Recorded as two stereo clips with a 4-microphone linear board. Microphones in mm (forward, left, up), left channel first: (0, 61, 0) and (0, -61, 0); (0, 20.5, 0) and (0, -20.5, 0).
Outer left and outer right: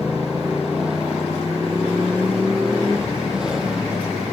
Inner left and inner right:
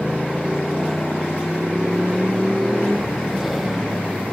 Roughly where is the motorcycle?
Centre.